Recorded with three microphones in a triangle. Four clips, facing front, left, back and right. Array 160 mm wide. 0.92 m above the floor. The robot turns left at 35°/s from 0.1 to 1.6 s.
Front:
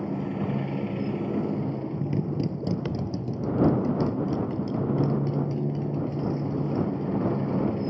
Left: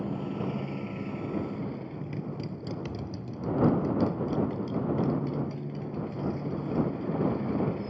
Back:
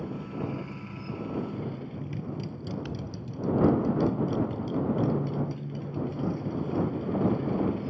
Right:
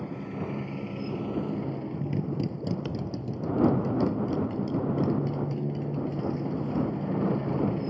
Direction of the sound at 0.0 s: 25° left.